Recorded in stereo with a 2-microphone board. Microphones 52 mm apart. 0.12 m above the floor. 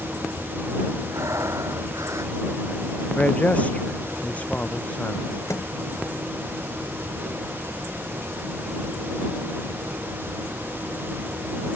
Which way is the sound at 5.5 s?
65° left (ahead or behind).